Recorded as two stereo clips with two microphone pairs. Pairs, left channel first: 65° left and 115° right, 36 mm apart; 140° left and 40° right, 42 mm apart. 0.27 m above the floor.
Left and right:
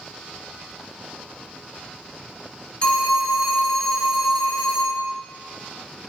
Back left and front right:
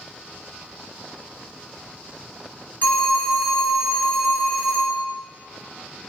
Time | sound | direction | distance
2.8 | a phone ringing | 115° left | 1.1 m